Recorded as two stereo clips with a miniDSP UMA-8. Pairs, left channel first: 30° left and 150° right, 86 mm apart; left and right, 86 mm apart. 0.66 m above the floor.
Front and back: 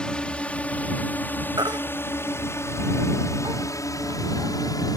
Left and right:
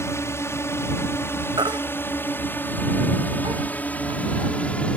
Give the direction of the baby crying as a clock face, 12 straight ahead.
4 o'clock.